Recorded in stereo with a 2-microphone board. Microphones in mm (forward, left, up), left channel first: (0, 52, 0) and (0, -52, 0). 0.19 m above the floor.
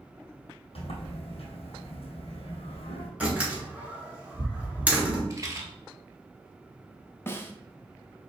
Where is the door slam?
15° right (ahead or behind), 2.0 m.